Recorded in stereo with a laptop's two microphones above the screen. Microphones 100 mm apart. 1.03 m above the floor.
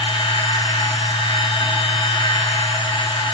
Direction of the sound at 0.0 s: 75° left (ahead or behind).